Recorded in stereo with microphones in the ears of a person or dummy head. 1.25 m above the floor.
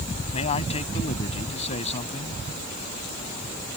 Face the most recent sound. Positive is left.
turn(degrees=40)  # may be behind; listen again after turning